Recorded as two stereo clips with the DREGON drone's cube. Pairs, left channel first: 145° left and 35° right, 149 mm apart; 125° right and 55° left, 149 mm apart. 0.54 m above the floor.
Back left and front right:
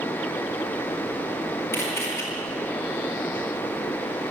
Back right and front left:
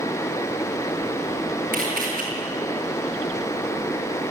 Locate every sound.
1.7 s a camera shutter: 70° left, 9 m